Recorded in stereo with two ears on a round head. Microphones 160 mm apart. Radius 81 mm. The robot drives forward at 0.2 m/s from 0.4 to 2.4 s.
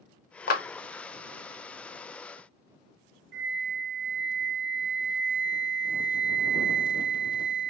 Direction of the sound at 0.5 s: 50° left (ahead or behind).